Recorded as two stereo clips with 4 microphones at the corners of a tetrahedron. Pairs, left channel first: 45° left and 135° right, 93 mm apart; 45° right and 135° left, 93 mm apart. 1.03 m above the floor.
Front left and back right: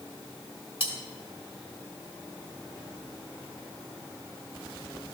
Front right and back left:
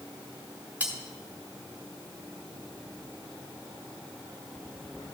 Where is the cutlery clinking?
60° left, 1.7 m.